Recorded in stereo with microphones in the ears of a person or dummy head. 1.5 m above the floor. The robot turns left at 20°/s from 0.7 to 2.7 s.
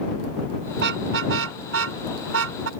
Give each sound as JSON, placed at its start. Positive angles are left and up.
{"t": 0.7, "sound": "a car horn", "side_deg": -70}